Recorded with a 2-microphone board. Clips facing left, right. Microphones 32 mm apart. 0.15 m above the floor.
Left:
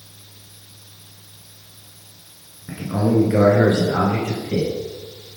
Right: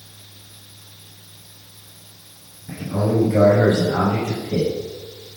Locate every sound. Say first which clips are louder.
2.7 s a man speaking: left 2 dB; 35° left (ahead or behind), 1.5 m; by 4.7 s 50° left (ahead or behind), 2.5 m